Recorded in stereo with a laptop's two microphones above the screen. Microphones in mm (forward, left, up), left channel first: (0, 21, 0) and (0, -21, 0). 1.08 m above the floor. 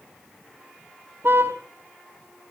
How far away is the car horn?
About 5 m.